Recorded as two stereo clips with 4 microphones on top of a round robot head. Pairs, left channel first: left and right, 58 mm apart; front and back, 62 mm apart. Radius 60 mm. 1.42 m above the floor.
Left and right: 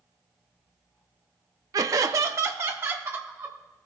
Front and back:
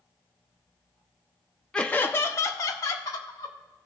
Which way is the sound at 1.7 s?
80° right.